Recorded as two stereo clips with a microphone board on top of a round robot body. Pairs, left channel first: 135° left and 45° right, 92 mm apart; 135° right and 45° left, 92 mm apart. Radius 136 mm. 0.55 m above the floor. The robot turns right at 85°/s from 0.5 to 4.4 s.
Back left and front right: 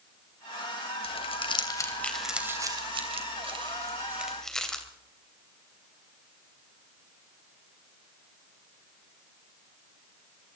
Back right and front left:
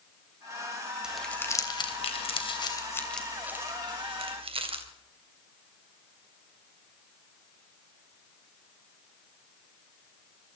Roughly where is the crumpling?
Behind left.